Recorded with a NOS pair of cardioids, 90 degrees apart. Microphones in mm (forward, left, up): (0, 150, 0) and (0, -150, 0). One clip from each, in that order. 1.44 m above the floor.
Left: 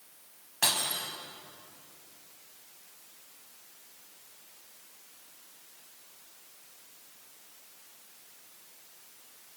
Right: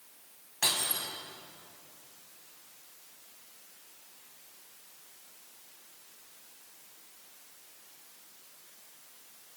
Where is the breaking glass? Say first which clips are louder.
Left 1 dB; 25° left, 4.5 m.